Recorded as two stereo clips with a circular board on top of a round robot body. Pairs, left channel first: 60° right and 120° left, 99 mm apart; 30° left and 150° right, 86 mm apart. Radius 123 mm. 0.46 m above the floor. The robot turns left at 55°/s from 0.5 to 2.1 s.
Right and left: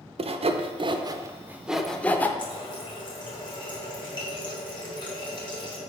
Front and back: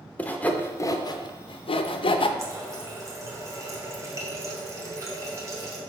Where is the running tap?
100° right, 1.8 m.